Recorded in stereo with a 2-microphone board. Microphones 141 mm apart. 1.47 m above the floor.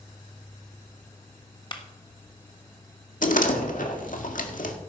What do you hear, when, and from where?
1.7 s a clap: 35° left (ahead or behind), 1.5 m
3.2 s a door slam: 70° left (ahead or behind), 2.0 m